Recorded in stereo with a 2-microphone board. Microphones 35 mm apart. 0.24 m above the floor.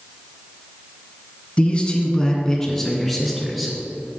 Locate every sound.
1.6 s a man speaking: 35° left (ahead or behind), 2.0 m; by 3.8 s centre (ahead or behind), 3 m